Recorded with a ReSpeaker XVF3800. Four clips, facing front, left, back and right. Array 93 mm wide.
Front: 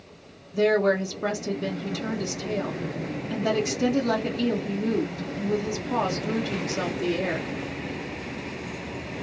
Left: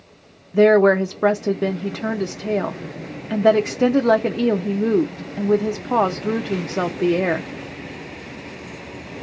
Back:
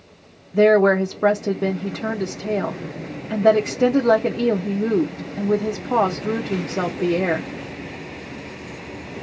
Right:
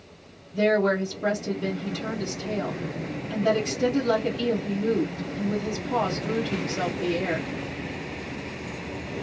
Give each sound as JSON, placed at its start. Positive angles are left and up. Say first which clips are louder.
{"t": 0.5, "sound": "a woman speaking", "louder": "left 9 dB, back 7 dB", "azimuth_deg": 125, "distance_m": 0.8}